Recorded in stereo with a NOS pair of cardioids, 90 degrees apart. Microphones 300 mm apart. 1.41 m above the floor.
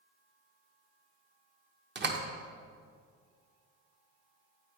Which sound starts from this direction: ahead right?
A door slam, at 1.9 s.